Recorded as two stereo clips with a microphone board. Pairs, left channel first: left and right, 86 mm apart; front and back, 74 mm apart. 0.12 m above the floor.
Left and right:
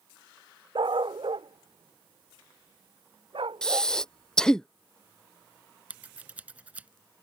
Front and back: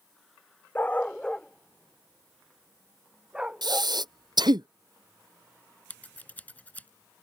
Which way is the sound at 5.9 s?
40° right.